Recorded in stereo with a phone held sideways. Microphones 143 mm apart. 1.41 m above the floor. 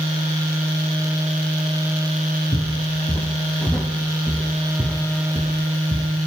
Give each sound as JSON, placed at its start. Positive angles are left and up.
{"t": 2.5, "sound": "footsteps", "side_deg": 30, "distance_m": 4.0}